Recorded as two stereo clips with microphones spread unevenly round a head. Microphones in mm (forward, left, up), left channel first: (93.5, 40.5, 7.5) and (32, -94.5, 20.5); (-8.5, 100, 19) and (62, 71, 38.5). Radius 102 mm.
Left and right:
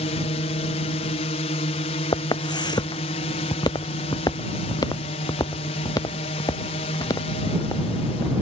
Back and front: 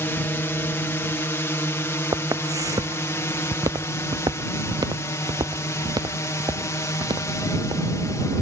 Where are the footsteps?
5° left; by 8.3 s straight ahead.